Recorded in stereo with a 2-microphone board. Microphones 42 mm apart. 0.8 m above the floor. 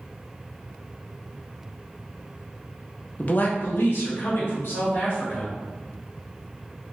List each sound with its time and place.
3.2 s a man speaking: 35° left (ahead or behind), 0.6 m; by 5.5 s 60° left (ahead or behind), 1.8 m